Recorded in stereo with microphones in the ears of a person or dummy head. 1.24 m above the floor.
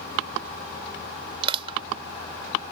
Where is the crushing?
30° right (ahead or behind).